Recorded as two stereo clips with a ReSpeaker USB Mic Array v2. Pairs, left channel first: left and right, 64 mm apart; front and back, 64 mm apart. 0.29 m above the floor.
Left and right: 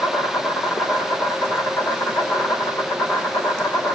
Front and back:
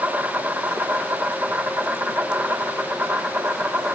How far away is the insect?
About 4.5 m.